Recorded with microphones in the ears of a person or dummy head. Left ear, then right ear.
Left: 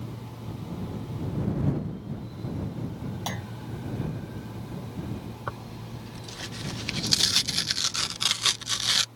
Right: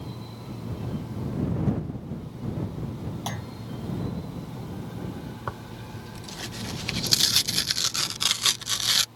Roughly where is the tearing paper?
Centre.